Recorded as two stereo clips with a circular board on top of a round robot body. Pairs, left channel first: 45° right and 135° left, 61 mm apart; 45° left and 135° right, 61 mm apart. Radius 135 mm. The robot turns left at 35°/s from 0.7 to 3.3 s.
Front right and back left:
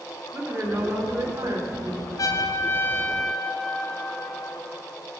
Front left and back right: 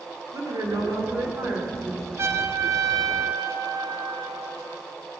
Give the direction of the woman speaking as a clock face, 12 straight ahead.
5 o'clock.